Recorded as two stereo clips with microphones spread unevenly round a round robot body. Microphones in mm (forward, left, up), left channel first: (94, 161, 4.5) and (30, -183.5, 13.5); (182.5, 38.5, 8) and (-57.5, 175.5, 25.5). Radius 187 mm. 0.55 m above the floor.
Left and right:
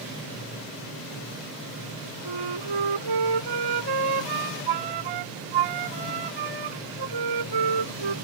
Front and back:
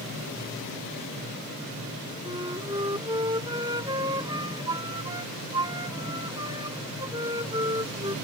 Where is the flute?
130° right.